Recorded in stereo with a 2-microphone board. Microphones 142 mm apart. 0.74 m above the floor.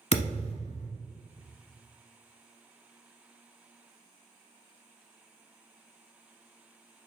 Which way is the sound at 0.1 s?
50° left (ahead or behind).